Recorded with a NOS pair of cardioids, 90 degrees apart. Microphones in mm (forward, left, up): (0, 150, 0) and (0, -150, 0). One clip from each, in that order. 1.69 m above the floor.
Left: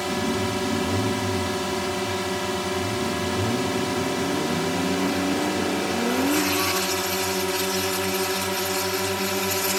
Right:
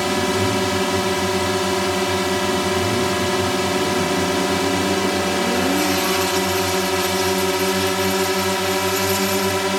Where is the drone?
45° right.